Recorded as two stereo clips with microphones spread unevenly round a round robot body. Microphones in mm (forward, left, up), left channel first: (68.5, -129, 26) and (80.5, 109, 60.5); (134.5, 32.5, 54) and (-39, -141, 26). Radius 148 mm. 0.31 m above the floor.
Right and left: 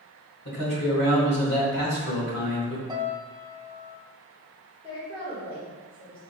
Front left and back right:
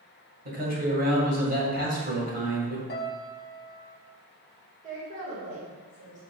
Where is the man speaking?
100° right, 1.7 m.